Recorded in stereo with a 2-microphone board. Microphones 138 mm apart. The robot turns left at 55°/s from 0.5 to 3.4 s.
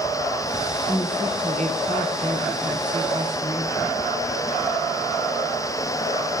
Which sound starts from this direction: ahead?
A woman speaking, at 0.9 s.